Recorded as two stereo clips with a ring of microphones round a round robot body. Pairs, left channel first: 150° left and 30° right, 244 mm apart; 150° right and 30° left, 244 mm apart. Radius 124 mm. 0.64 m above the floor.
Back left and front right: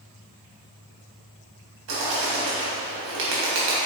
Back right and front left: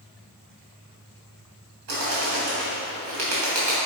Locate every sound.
1.9 s a bird: 10° left, 3 m